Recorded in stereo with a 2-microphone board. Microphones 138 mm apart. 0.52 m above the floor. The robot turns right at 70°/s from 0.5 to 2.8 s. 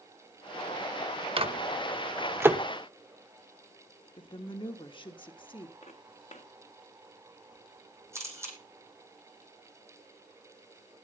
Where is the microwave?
40° right (ahead or behind), 0.9 m; by 2.6 s 10° right (ahead or behind), 0.9 m.